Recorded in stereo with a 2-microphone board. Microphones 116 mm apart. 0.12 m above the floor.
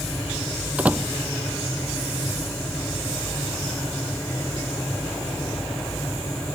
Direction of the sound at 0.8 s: 10° right (ahead or behind).